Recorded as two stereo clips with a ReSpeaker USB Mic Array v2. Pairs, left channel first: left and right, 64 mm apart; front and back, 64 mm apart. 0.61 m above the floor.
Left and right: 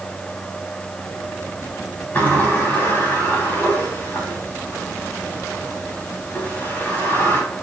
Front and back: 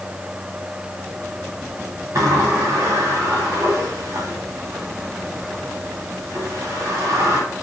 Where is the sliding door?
150° left, 3.5 m.